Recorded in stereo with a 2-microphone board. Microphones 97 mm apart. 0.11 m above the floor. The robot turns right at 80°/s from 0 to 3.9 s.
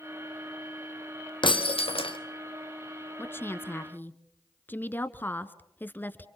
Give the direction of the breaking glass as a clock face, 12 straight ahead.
10 o'clock.